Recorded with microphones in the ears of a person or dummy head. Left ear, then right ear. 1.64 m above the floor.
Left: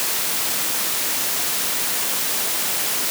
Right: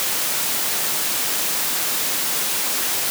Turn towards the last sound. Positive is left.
No sound to turn to.